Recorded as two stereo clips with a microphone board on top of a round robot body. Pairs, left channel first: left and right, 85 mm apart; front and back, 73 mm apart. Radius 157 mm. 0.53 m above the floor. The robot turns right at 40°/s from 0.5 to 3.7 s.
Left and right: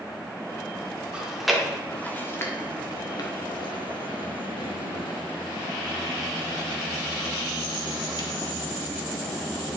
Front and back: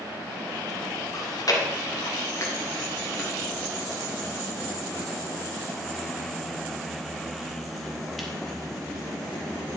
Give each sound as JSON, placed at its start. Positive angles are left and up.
{"t": 1.1, "sound": "chewing", "azimuth_deg": -15, "distance_m": 1.7}